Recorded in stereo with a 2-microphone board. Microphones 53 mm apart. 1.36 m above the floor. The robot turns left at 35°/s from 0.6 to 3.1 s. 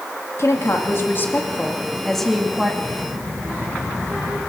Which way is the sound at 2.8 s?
10° right (ahead or behind).